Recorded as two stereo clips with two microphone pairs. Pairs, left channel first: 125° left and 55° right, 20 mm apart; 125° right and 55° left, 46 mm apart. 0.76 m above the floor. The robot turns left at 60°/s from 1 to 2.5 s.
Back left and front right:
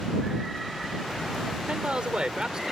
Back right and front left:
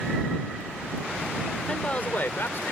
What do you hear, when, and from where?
1.7 s a man speaking: 55° right; by 2.7 s 105° right